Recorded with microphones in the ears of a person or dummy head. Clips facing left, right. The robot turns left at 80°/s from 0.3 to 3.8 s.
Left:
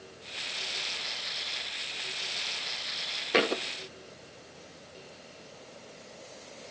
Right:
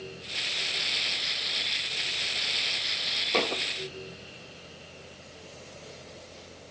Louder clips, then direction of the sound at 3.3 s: Left 2 dB; 5° left (ahead or behind).